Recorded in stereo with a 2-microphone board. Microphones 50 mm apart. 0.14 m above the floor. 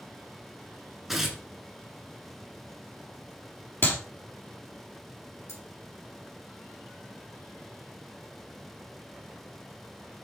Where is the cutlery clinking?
70° left (ahead or behind), 4 m.